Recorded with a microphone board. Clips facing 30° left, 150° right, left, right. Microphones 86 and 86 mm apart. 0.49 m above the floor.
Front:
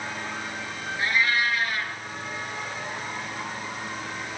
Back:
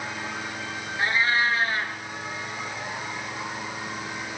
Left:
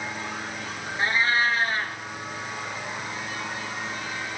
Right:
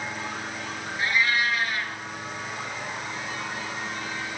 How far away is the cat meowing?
About 2 m.